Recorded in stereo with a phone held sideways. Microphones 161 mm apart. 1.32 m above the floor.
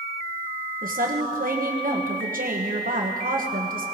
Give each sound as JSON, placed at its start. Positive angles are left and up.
{"t": 0.8, "sound": "a woman speaking", "side_deg": -60, "distance_m": 1.3}